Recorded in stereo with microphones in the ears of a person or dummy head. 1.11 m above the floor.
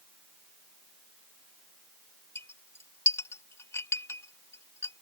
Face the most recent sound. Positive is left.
turn(degrees=10)  # may be behind; listen again after turning